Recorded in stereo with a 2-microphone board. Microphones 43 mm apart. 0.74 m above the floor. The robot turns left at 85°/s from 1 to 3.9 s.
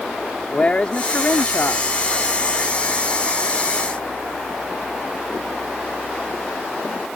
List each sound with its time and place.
0.5 s a man speaking: 145° left; by 1.9 s 70° left